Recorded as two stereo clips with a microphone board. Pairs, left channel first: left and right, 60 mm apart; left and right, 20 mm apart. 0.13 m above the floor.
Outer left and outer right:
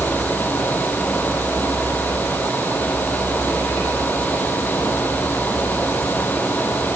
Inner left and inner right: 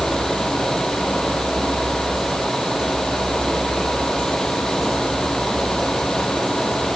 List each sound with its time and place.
Only background noise.